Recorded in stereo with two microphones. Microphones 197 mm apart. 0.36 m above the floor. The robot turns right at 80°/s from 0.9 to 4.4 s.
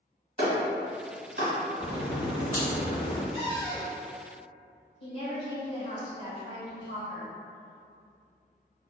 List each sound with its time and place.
0.4 s a clap: 45° right (ahead or behind), 1.6 m; by 1.5 s 70° right (ahead or behind), 1.6 m
1.8 s a crack: 10° right, 1.6 m; by 3.2 s 105° left, 1.6 m
3.3 s a cupboard door: 135° left, 1.3 m; by 4.0 s 175° right, 1.3 m
5.0 s a woman speaking: 35° left (ahead or behind), 1.5 m